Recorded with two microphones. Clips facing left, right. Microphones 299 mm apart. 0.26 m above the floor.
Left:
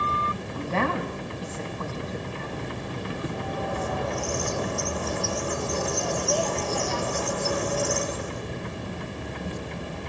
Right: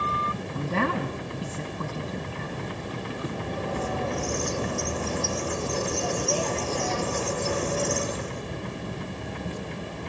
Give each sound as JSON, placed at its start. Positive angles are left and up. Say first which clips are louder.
{"t": 0.5, "sound": "a woman speaking", "louder": "even", "side_deg": -40, "distance_m": 2.0}
{"t": 3.3, "sound": "a bird", "louder": "even", "side_deg": -30, "distance_m": 2.5}